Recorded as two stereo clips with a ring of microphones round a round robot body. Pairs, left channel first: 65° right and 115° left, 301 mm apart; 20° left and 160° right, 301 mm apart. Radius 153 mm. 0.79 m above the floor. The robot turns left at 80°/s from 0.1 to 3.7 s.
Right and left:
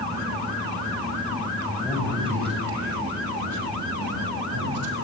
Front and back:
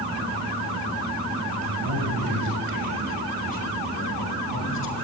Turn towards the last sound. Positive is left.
turn(degrees=70)